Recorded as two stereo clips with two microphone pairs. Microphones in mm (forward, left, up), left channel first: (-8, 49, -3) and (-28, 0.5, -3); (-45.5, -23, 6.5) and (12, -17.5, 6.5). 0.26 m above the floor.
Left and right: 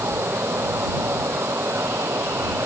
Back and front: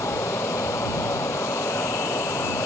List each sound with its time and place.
0.0 s running water: 150° right